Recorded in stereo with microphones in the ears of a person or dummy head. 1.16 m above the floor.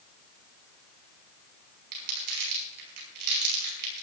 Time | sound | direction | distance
1.9 | crumpling | 60° right (ahead or behind) | 5.5 m